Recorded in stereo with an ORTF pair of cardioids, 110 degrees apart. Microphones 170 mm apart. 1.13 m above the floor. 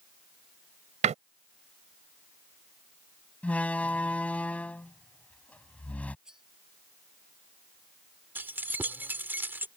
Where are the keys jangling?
10° right.